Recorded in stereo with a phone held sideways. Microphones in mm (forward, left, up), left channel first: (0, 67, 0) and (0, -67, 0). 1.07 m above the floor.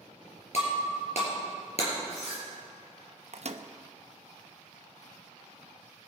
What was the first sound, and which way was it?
Breaking glass, 55° left (ahead or behind).